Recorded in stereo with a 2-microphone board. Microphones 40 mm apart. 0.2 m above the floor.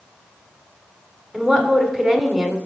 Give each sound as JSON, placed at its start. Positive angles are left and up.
{"t": 1.3, "sound": "a woman speaking", "side_deg": -10, "distance_m": 1.5}